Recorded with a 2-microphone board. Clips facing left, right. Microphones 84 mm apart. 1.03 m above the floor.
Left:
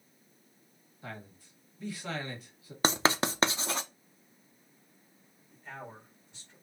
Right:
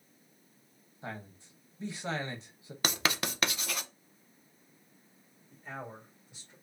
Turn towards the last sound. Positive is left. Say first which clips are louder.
# right 2 dB
turn(degrees=-20)  # may be behind; listen again after turning